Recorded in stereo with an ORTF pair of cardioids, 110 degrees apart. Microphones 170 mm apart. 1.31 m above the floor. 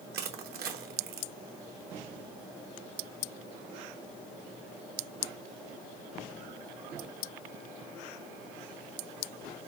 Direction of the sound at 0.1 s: 65° right.